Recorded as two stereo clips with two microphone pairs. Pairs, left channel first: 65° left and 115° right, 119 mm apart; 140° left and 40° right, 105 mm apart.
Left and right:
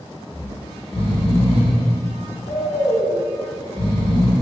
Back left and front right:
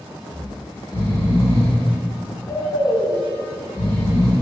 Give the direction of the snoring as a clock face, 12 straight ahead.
9 o'clock.